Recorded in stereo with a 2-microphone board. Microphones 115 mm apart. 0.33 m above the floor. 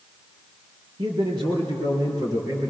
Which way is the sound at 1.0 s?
50° right (ahead or behind).